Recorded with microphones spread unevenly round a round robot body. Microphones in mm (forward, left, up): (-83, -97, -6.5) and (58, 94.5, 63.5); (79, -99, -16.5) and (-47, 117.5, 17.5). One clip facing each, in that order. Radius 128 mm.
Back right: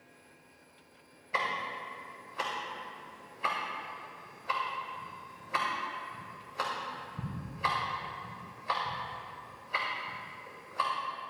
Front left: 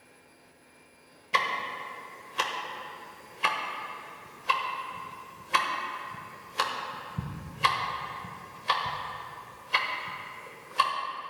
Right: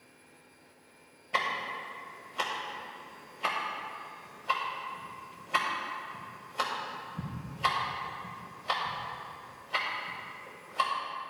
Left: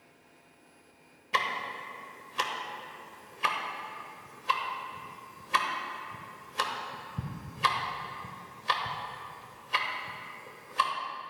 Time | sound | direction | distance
1.3 | ticking | 70° left | 1.1 m